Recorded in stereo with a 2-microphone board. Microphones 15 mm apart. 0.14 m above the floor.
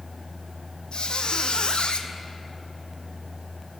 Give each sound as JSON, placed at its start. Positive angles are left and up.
{"t": 0.9, "sound": "a squeak", "side_deg": 65, "distance_m": 0.5}